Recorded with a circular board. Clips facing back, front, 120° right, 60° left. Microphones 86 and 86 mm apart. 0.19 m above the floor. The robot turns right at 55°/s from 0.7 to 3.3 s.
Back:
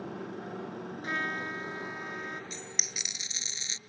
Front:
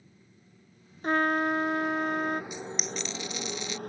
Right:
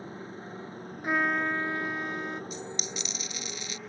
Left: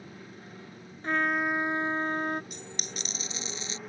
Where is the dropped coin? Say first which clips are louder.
Front 7 dB, right 4 dB; 75° left; by 3.8 s 120° left.